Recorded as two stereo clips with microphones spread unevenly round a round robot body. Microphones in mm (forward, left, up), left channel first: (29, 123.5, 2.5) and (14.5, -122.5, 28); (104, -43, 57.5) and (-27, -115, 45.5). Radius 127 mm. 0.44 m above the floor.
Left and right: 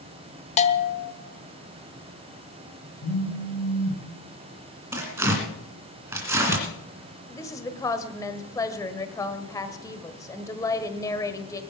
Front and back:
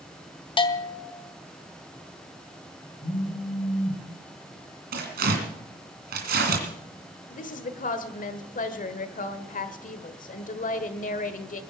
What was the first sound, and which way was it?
A bell, 65° left.